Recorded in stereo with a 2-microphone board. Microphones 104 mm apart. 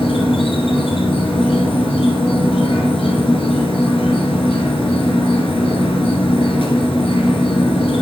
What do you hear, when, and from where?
0.0 s an insect: 70° left (ahead or behind), 1.5 m